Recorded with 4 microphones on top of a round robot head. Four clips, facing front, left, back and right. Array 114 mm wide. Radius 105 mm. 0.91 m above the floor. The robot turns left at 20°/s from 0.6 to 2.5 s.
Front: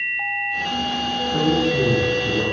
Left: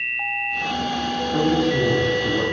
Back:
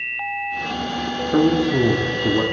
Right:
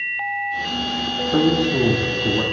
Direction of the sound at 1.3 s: 150° right.